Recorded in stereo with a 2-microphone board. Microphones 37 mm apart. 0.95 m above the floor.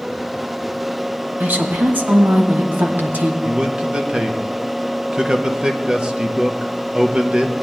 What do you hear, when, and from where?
1.4 s a woman speaking: 55° right (ahead or behind), 1.1 m
3.4 s a man speaking: 25° right (ahead or behind), 0.9 m